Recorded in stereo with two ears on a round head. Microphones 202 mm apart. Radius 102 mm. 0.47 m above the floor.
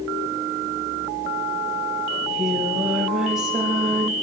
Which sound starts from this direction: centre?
Singing, at 2.1 s.